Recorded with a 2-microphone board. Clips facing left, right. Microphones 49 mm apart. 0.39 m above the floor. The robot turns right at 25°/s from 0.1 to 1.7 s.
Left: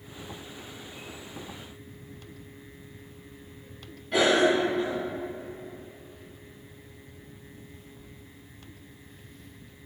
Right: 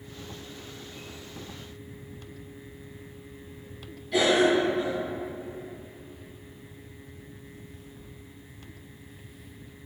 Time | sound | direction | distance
4.1 | a cough | 40° left (ahead or behind) | 2.5 m